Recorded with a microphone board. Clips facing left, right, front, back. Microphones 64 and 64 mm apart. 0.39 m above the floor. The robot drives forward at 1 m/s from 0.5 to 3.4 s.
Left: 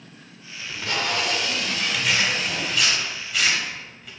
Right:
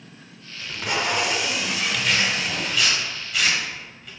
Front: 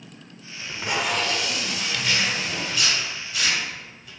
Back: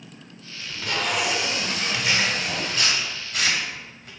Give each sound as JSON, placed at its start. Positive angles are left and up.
{"t": 0.6, "sound": "tape being pulled", "azimuth_deg": -20, "distance_m": 0.8}
{"t": 1.9, "sound": "tearing paper", "azimuth_deg": 170, "distance_m": 1.2}